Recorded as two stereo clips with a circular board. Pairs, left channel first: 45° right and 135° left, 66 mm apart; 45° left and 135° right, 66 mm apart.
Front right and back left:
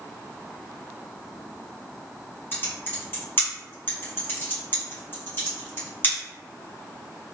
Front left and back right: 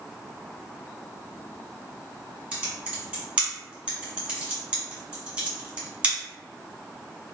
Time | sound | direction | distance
2.5 | typing on a keyboard | 70° right | 1.6 m